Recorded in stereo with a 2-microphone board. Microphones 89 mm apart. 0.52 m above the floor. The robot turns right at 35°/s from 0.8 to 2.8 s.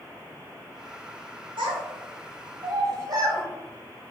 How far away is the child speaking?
About 1.4 m.